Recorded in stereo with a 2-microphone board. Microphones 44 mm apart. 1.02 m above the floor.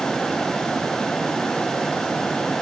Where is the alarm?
I don't hear an alarm.